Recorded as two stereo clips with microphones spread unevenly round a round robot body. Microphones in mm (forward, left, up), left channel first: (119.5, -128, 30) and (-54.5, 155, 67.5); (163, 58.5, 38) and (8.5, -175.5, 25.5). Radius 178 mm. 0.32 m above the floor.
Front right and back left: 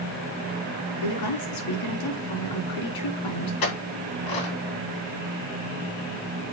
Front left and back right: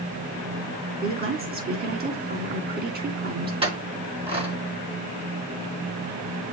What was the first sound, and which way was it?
A woman speaking, 70° right.